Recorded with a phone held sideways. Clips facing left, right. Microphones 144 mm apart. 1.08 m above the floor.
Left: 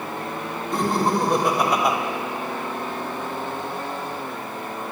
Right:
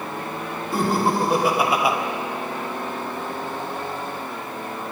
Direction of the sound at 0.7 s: 5° right (ahead or behind).